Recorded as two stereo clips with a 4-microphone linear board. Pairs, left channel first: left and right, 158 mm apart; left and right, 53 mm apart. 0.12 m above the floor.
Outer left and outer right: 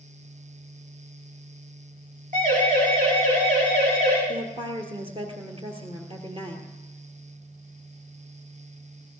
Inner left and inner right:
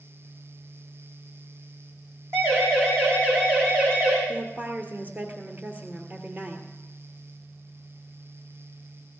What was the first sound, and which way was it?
A siren, 60° right (ahead or behind).